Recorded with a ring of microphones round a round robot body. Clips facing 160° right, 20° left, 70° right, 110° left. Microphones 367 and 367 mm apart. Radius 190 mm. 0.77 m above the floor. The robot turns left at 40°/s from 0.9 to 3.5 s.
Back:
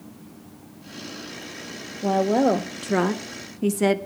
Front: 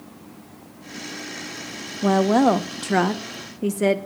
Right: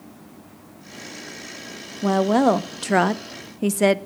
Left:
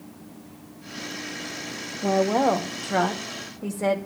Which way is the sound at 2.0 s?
20° right.